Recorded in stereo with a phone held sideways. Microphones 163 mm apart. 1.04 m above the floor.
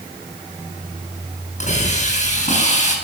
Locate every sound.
1.6 s a hiss: 45° left (ahead or behind), 7.5 m